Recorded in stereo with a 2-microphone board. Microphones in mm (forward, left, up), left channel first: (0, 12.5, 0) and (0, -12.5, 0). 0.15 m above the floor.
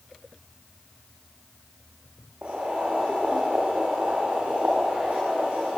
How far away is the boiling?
About 10 m.